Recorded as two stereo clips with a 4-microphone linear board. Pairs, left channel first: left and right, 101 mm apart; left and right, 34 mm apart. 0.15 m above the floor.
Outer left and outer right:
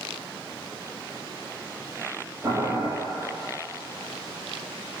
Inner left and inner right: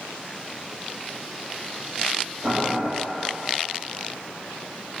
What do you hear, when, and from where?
2.4 s boiling: 25° right (ahead or behind), 1.5 m